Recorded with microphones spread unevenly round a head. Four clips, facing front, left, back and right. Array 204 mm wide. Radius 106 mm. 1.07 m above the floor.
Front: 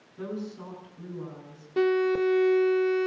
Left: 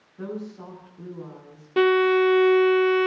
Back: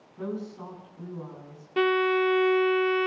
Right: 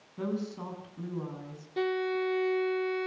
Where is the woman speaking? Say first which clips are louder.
Even, back 1 dB; 90° right, 8.5 m.